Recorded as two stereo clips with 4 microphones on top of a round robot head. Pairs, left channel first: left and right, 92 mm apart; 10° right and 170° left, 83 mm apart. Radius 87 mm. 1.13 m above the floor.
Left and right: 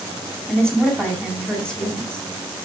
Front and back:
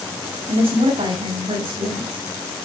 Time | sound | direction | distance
0.5 | a woman speaking | 175° left | 9 m